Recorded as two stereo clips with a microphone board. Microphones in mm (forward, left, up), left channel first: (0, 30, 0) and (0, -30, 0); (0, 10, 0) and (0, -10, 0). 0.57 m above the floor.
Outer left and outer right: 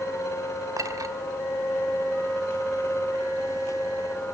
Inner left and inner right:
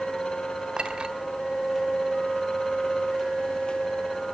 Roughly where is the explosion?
No explosion in this recording.